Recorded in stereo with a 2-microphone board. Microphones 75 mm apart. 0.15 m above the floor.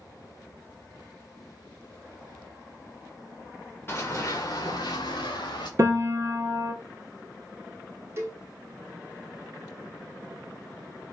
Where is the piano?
40° right (ahead or behind), 0.6 m.